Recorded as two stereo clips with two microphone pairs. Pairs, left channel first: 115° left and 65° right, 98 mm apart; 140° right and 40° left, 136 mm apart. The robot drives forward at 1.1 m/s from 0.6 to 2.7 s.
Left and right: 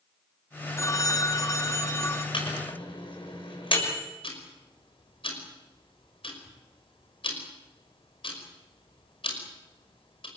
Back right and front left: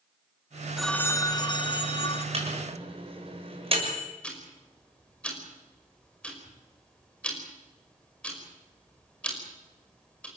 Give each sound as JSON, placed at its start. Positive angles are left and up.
{"t": 0.8, "sound": "a phone ringing", "azimuth_deg": 120, "distance_m": 0.5}
{"t": 2.3, "sound": "a microwave", "azimuth_deg": 80, "distance_m": 6.0}
{"t": 4.2, "sound": "ticking", "azimuth_deg": 140, "distance_m": 5.5}